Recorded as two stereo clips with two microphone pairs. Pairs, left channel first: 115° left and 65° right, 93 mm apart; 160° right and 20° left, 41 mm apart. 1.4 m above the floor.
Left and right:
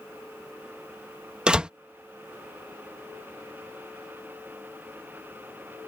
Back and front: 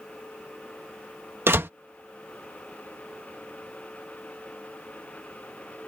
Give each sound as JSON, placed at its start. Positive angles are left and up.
{"t": 1.5, "sound": "a door slam", "azimuth_deg": 10}